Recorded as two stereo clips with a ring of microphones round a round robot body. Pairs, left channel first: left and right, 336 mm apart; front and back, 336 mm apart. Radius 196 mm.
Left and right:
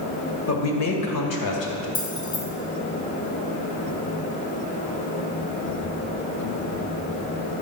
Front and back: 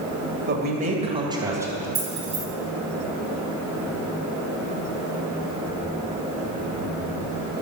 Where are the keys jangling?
125° left, 4.5 m.